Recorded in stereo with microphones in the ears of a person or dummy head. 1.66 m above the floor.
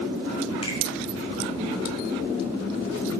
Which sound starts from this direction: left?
A finger snap, at 0.6 s.